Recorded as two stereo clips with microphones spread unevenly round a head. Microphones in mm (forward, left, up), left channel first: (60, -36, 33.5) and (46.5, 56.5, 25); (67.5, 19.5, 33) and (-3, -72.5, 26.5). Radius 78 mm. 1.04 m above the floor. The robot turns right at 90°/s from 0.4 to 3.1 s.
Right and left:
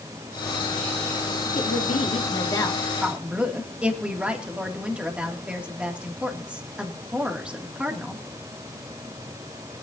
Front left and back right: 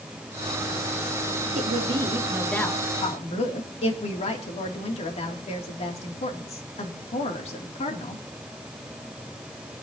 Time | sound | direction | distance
1.6 | a woman speaking | 115° right | 2.5 m